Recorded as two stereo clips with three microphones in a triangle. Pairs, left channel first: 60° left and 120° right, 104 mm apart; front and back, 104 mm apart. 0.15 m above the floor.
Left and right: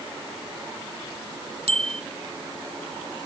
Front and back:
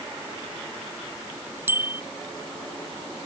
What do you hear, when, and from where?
1.7 s a bicycle bell: 110° right